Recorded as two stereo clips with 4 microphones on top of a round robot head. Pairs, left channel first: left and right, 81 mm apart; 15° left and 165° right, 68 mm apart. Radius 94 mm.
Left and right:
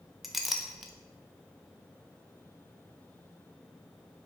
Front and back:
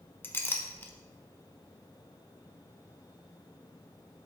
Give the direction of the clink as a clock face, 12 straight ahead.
12 o'clock.